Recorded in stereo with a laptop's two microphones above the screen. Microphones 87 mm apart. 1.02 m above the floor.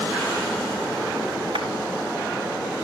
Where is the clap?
85° right, 4 m.